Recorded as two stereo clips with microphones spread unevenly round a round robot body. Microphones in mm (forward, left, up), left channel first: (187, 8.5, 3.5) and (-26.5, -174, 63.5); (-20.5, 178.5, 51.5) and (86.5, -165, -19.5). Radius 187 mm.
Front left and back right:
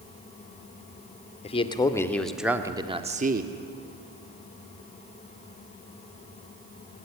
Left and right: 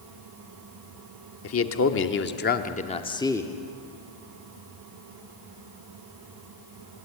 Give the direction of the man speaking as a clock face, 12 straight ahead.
10 o'clock.